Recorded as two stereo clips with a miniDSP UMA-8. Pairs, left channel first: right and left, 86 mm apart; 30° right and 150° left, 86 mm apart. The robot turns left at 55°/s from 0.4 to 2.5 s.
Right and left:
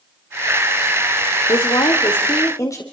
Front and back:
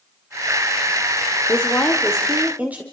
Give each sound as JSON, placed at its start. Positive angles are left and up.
{"t": 1.5, "sound": "a woman speaking", "azimuth_deg": -85, "distance_m": 2.0}